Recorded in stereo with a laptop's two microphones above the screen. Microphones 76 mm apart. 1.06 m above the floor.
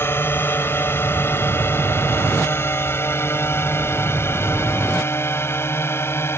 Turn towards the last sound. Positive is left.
turn(degrees=35)  # may be behind; listen again after turning